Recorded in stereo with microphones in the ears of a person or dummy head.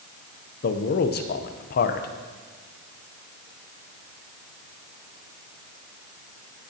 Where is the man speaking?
50° left (ahead or behind), 0.7 m.